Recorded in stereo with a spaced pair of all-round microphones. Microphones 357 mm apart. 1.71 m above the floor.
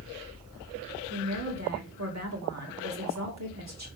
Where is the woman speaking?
45° right (ahead or behind), 2.5 m.